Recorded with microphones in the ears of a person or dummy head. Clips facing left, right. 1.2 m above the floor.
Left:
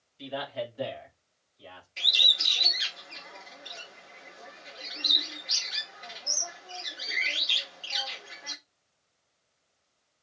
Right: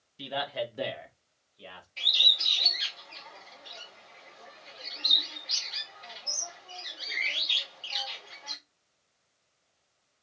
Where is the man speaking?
60° right (ahead or behind), 1.7 m.